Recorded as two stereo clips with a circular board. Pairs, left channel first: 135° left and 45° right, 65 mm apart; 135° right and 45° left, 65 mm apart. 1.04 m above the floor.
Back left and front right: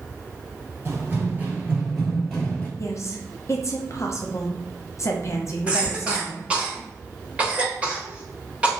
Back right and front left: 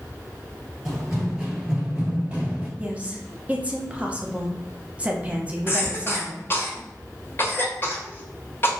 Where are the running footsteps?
40° right, 1.2 m; by 2.7 s 85° left, 1.0 m.